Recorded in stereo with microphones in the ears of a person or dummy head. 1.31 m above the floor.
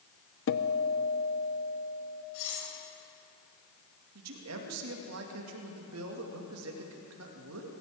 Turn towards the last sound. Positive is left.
turn(degrees=-80)